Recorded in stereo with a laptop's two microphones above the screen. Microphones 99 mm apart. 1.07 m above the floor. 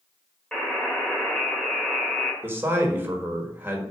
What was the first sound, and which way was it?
A buzzer, 10° left (ahead or behind).